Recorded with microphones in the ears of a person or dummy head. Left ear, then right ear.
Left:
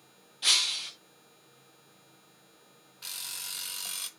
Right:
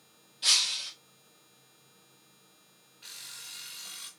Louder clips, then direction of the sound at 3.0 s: Left 5 dB; 45° left (ahead or behind).